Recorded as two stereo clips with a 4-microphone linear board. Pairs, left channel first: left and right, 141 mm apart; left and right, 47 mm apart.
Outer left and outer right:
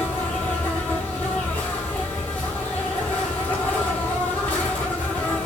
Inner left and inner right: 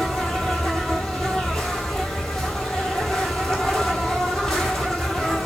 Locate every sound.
0.0 s an insect: 10° left (ahead or behind), 1.4 m